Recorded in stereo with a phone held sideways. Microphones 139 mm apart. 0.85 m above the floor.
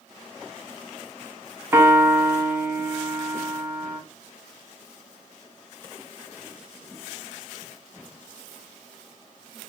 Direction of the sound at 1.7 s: 15° right (ahead or behind).